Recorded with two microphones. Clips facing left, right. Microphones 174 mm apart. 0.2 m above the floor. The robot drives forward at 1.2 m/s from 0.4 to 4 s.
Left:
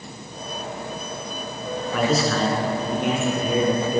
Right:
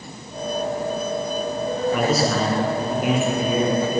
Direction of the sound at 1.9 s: 5° right (ahead or behind).